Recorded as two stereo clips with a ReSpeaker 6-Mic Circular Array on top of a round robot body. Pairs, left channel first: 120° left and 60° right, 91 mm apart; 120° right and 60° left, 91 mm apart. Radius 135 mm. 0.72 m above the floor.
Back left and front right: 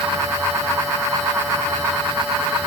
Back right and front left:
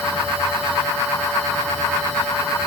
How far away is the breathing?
No breathing in this recording.